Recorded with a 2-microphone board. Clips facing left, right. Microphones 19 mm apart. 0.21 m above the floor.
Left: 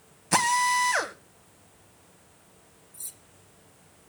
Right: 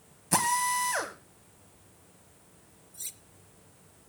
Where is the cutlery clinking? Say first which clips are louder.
Right 2 dB; 50° right (ahead or behind), 1.0 m.